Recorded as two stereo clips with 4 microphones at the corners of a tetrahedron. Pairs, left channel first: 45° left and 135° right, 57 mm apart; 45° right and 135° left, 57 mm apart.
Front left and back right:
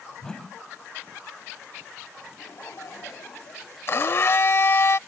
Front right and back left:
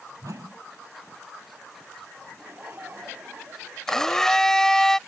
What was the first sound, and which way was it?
A whoosh, 125° left.